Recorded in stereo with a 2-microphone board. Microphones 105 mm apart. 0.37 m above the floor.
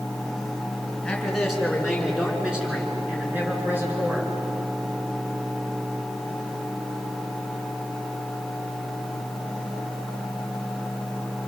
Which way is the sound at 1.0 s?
5° left (ahead or behind).